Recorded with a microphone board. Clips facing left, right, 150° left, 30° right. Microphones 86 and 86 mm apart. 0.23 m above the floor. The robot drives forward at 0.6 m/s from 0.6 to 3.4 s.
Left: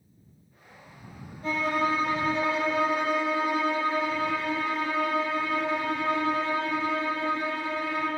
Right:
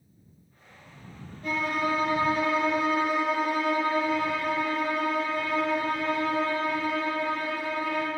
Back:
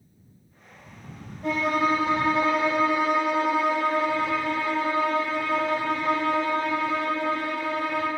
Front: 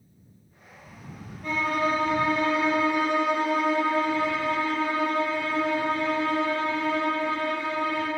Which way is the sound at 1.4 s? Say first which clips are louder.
Left 1 dB, back 2 dB; 145° left.